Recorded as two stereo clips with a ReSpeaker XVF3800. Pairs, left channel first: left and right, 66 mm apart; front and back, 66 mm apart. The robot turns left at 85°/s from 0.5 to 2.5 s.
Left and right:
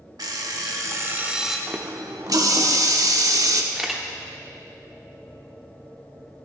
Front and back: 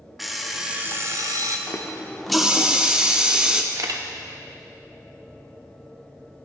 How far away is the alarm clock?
About 1.0 m.